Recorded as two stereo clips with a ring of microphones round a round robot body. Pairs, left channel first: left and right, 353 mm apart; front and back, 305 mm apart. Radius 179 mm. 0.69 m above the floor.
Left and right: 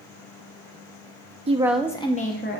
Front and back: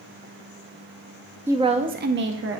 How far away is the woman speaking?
About 0.6 m.